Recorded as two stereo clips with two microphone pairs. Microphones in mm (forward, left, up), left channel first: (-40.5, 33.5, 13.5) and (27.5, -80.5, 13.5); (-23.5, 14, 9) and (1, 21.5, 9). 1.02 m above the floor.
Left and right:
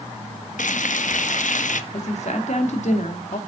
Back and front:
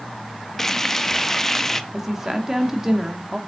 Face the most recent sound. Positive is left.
turn(degrees=95)